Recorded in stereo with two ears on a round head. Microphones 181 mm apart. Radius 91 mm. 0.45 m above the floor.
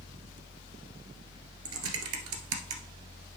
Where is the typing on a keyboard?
80° right, 1.2 m.